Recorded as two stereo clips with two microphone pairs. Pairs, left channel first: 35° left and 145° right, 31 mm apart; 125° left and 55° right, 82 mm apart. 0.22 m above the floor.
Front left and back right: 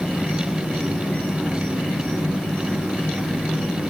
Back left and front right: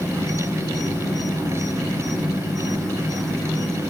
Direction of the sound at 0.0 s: 95° left.